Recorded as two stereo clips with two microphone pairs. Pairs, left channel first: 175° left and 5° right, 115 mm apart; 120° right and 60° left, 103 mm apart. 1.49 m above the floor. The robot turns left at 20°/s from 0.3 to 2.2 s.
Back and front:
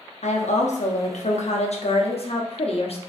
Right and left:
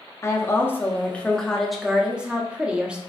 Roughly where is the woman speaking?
Behind.